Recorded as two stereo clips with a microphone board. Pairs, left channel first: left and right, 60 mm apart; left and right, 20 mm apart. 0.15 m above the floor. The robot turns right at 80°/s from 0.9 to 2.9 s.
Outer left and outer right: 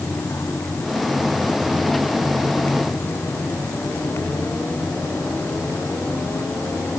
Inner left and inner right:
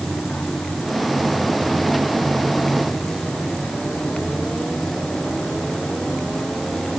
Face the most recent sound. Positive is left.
No sound to turn to.